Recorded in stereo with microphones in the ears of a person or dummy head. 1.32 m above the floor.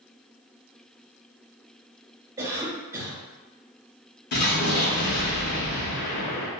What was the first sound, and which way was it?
A cough, 15° right (ahead or behind).